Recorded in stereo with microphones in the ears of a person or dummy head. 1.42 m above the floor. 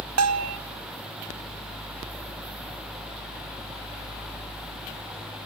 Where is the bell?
75° right (ahead or behind), 0.9 m.